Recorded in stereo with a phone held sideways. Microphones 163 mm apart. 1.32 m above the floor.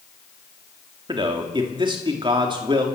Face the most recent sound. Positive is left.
turn(degrees=-30)  # may be behind; listen again after turning